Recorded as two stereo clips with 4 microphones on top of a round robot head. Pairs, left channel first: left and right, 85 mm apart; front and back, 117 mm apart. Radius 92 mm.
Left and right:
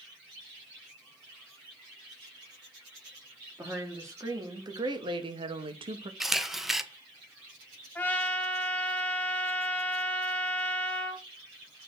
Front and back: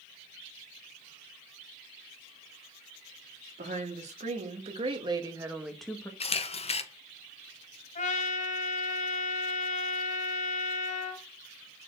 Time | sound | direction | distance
3.6 | a woman speaking | 155° right | 2 m
6.2 | a camera shutter | 5° right | 1.1 m
8.0 | a trumpet | 20° left | 2.0 m